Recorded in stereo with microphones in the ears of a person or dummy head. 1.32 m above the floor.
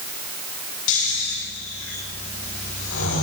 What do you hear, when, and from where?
0.9 s snoring: 75° left (ahead or behind), 10 m